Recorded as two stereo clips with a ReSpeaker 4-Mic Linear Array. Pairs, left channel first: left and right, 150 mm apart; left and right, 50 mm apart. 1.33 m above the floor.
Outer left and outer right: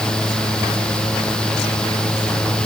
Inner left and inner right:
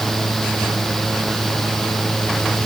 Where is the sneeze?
I don't hear a sneeze.